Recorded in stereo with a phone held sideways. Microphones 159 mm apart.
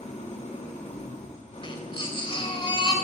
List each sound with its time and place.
0.0 s an engine running: 50° left (ahead or behind), 2.5 m
1.6 s a baby crying: 35° left (ahead or behind), 3.5 m